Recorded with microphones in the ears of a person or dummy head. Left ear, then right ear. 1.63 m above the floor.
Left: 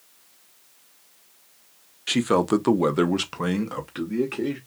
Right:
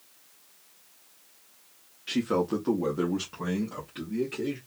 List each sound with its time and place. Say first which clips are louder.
2.1 s a man speaking: left 6 dB; 30° left (ahead or behind), 0.6 m; by 4.6 s 45° left (ahead or behind), 1.1 m